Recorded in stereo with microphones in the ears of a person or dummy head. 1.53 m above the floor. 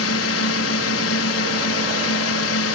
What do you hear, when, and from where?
0.0 s a drone: 80° left